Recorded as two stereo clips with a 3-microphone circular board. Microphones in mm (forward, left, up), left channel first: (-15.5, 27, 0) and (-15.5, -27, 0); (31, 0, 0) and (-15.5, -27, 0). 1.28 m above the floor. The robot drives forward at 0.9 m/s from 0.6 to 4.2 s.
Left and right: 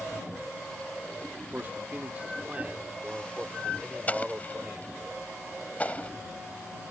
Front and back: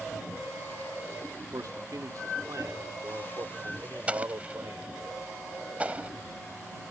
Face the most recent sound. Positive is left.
turn(degrees=150)